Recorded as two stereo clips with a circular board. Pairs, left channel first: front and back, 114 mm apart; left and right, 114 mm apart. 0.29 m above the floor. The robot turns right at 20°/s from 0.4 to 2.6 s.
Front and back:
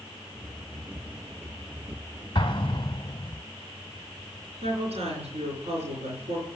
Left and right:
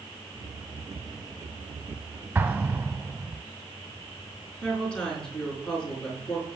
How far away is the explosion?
About 0.8 m.